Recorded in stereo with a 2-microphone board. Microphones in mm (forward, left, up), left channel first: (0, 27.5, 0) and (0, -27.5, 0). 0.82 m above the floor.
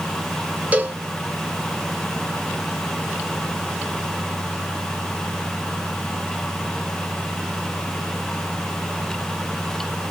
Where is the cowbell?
25° right (ahead or behind), 1.4 m.